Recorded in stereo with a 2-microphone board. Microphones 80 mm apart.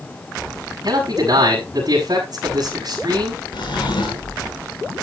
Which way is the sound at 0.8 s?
55° right (ahead or behind).